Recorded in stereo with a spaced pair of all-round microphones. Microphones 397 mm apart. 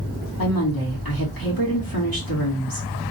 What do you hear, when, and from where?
0.4 s a woman speaking: 60° left (ahead or behind), 2 m